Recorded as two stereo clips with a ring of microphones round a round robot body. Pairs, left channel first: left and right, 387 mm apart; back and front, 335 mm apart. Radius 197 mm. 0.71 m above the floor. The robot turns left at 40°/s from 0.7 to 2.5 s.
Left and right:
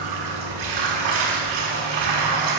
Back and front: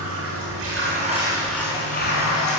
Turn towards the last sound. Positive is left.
turn(degrees=-130)